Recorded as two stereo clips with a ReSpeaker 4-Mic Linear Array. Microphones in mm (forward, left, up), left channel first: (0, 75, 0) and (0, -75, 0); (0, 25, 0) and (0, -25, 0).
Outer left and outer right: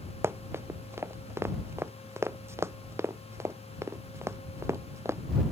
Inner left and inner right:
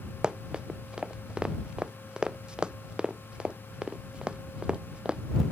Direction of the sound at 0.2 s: 15° right (ahead or behind).